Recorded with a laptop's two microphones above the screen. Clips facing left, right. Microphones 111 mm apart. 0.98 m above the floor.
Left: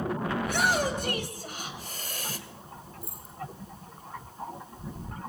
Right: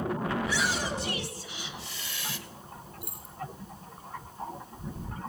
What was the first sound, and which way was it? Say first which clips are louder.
A shout: left 4 dB; 50° left (ahead or behind).